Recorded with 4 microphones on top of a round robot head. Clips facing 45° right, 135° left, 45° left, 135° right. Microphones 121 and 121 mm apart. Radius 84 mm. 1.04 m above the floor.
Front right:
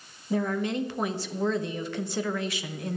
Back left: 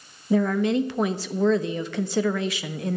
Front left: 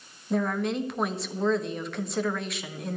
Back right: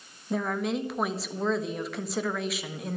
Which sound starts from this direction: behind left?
A woman speaking, at 0.3 s.